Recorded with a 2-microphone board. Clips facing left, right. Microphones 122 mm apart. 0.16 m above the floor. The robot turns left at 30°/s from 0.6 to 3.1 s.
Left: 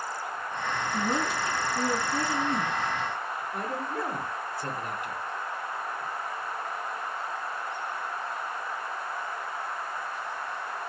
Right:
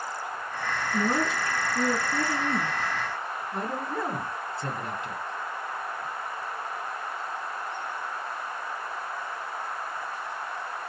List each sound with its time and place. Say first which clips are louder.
0.9 s a woman speaking: right 3 dB; 55° right, 2 m; by 2.7 s 110° right, 2 m
3.5 s a man speaking: right 2 dB; 30° right (ahead or behind), 1.7 m